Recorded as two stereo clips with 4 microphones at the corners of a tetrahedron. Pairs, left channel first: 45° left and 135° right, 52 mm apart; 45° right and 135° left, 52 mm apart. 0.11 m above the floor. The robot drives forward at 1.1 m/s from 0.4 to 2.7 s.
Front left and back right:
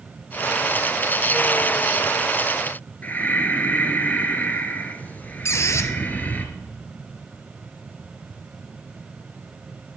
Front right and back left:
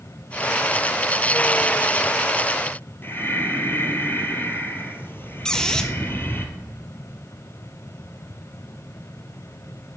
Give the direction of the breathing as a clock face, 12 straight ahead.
12 o'clock.